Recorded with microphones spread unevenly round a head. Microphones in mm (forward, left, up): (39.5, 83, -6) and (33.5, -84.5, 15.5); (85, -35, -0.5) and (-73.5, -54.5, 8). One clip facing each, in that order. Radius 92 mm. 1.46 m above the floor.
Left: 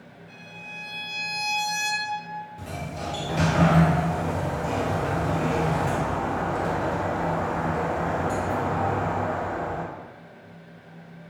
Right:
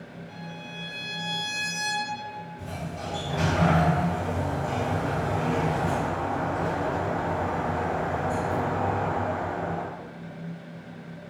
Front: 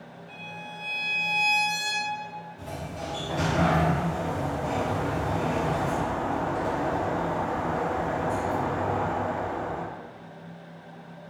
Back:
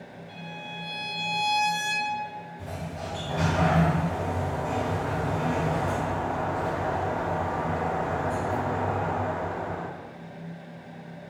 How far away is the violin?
About 1.9 m.